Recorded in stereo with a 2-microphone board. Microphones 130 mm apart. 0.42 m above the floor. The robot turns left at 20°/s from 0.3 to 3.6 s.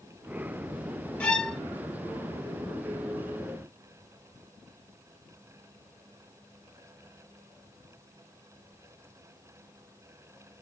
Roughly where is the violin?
Centre.